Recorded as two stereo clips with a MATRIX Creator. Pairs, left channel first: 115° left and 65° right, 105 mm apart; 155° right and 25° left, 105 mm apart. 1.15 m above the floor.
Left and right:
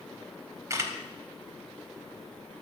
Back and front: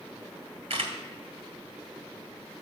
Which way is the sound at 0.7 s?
5° right.